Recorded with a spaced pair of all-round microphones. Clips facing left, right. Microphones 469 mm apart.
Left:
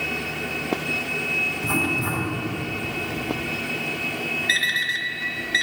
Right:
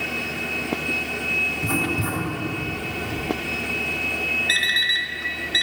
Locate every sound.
1.6 s writing: 55° right (ahead or behind), 2.5 m
4.5 s an alarm clock: 45° left (ahead or behind), 1.0 m